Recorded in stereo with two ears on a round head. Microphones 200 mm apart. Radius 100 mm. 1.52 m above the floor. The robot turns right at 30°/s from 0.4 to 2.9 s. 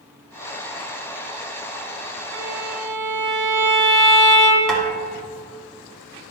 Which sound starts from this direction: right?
A violin, at 2.3 s.